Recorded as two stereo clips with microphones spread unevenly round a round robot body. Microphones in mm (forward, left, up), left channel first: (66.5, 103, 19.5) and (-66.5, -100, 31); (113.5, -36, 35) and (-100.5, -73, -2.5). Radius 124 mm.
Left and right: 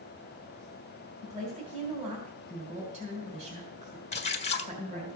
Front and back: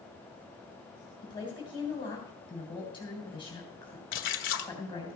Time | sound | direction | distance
1.2 | a woman speaking | 60° right | 3 m
4.1 | a splash | 5° left | 1.1 m